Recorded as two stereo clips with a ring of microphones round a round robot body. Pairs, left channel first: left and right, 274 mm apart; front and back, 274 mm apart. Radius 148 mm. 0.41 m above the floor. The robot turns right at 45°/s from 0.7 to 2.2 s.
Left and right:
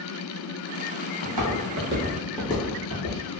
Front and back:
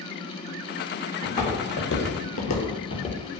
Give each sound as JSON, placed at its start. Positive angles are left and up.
{"t": 1.2, "sound": "footsteps", "azimuth_deg": -85, "distance_m": 1.2}